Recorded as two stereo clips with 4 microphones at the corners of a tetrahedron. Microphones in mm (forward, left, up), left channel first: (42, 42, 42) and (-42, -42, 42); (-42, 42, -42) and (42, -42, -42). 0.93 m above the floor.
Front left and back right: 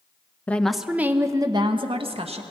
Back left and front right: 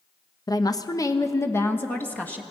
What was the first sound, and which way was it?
A woman speaking, 115° left.